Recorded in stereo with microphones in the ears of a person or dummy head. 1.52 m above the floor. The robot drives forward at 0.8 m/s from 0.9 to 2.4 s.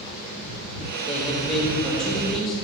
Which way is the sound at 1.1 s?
5° left (ahead or behind).